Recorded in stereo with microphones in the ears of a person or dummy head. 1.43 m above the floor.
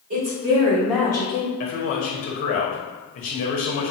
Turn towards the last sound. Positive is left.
turn(degrees=35)  # may be behind; listen again after turning